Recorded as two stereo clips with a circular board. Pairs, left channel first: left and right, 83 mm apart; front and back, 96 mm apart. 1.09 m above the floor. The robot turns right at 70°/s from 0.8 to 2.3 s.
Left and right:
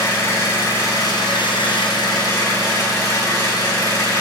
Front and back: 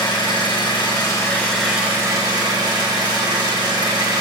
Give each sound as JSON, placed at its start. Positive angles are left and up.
{"t": 0.0, "sound": "an engine running", "azimuth_deg": 35, "distance_m": 3.5}